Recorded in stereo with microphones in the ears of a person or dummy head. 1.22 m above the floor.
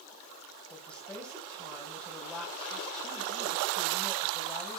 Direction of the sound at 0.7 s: 5° left (ahead or behind).